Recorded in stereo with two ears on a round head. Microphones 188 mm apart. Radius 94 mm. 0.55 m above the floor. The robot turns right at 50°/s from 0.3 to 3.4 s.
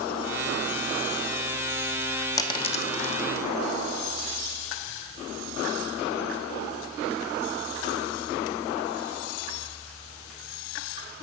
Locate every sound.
2.4 s a dropped coin: 15° left (ahead or behind), 1.0 m; by 3.2 s 50° left (ahead or behind), 1.0 m